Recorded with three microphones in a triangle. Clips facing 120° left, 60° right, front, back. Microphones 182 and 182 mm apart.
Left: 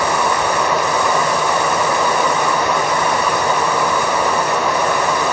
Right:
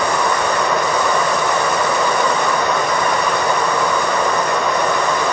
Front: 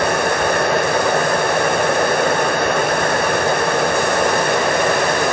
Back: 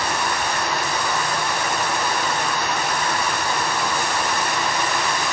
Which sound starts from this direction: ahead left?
Running water, at 0.0 s.